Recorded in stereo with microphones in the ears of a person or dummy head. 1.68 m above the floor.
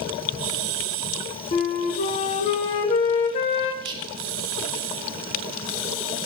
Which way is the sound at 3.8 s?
25° right (ahead or behind).